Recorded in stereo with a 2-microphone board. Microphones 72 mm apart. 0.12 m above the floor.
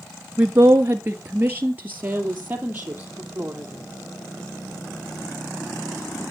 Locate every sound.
0.4 s a woman speaking: 30° right (ahead or behind), 1.4 m; by 3.9 s 20° right (ahead or behind), 4 m